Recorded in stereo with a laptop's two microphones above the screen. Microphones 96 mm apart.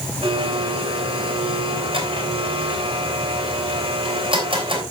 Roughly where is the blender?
Right.